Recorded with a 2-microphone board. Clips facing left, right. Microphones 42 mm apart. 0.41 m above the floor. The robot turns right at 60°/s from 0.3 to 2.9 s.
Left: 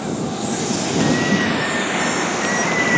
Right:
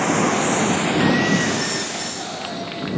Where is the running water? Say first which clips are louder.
Right 5 dB; 60° right; by 3.0 s 95° left.